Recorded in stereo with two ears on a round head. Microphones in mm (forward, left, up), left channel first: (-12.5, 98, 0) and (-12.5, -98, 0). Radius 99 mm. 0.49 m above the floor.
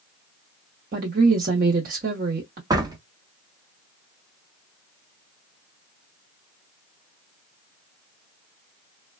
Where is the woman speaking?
45° right (ahead or behind), 0.9 m.